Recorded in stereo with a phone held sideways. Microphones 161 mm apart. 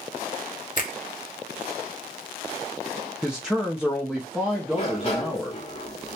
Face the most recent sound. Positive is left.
turn(degrees=40)  # may be behind; listen again after turning